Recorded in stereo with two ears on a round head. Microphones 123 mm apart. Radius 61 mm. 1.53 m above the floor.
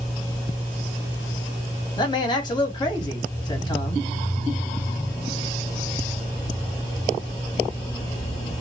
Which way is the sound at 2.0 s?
30° left (ahead or behind).